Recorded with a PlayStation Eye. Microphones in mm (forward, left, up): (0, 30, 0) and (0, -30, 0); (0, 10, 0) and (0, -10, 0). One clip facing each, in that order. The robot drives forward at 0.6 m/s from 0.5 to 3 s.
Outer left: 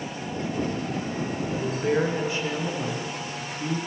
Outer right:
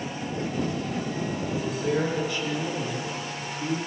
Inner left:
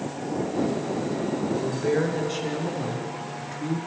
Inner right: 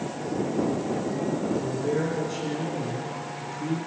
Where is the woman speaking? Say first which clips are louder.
Outer left 3 dB, inner left 2 dB; 20° left (ahead or behind), 1.4 m.